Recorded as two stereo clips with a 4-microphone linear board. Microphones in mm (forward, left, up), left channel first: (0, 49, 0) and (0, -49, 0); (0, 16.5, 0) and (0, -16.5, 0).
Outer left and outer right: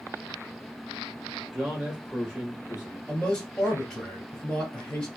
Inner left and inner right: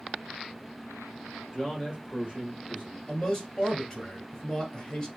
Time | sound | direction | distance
1.5 | a man speaking | 5° right (ahead or behind) | 3 m
3.1 | a man speaking | 10° left (ahead or behind) | 2 m